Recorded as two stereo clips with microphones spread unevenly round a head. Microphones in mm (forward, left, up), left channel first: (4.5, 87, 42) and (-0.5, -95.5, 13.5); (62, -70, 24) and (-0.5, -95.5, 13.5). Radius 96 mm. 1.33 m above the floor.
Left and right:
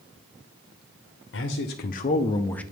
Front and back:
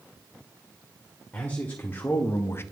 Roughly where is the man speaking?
Left.